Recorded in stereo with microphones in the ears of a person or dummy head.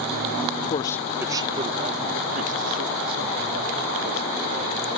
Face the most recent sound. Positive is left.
turn(degrees=-55)  # may be behind; listen again after turning